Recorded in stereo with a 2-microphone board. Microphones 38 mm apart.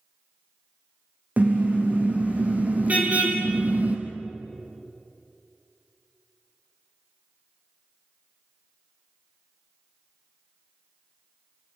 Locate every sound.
1.4 s a car horn: 40° right (ahead or behind), 6 m; by 4.0 s 35° right (ahead or behind), 3 m